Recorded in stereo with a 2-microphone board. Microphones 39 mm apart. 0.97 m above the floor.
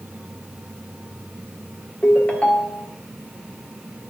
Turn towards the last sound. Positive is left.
turn(degrees=35)  # may be behind; listen again after turning